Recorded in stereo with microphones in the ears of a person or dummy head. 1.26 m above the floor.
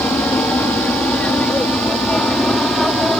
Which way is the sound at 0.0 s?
10° left (ahead or behind).